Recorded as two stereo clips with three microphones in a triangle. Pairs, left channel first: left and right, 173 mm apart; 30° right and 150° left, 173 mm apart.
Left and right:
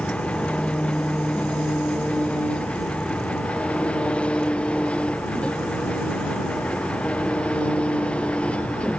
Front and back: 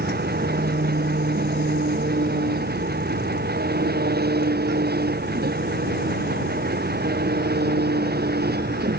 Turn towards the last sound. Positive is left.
turn(degrees=175)